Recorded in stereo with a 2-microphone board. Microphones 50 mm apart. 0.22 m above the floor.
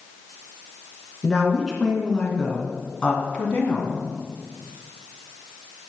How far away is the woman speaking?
About 3 m.